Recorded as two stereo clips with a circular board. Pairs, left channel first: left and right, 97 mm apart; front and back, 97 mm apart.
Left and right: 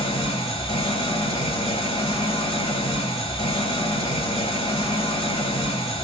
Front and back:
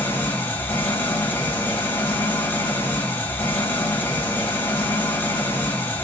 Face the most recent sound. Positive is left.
turn(degrees=70)